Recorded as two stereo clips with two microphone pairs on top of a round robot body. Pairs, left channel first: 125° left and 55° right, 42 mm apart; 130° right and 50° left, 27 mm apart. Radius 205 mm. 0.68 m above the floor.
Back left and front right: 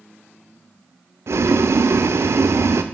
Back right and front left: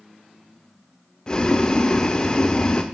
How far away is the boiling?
About 0.7 m.